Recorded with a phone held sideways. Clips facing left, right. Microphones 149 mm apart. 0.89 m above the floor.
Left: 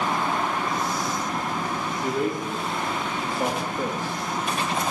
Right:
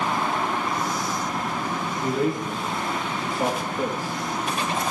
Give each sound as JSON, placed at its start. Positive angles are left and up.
{"t": 2.0, "sound": "a man speaking", "side_deg": 0, "distance_m": 3.0}